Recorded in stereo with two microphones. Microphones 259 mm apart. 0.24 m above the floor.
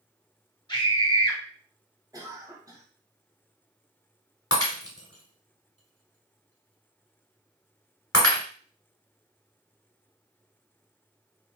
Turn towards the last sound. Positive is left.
turn(degrees=60)  # may be behind; listen again after turning